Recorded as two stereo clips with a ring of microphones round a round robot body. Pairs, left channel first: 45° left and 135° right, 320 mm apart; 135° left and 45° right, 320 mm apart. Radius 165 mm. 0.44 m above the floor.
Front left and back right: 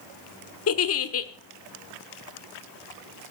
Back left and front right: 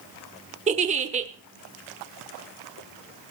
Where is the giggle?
20° left, 1.2 m.